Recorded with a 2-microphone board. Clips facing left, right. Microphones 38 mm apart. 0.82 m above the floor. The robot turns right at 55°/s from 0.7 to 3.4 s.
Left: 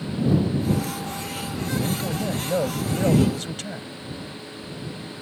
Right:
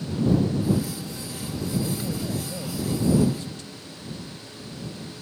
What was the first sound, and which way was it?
A man speaking, 5° left.